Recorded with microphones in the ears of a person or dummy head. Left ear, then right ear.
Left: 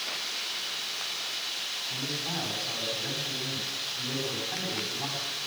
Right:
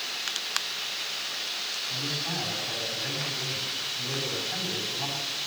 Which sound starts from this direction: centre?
A man speaking, at 1.9 s.